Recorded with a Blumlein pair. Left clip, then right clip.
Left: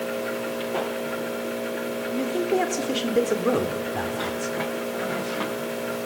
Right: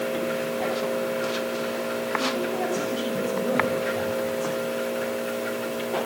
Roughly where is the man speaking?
Ahead left.